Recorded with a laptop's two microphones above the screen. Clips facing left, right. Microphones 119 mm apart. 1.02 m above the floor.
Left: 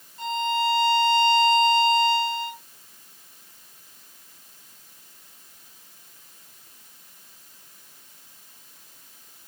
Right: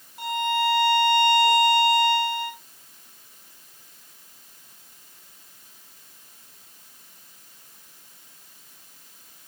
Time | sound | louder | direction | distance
0.2 | a violin | even | 60° right (ahead or behind) | 2 m